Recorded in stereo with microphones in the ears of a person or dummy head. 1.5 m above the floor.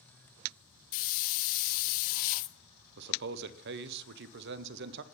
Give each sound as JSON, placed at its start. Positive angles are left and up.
{"t": 0.9, "sound": "a hiss", "side_deg": 45, "distance_m": 0.6}
{"t": 3.0, "sound": "a man speaking", "side_deg": -60, "distance_m": 0.6}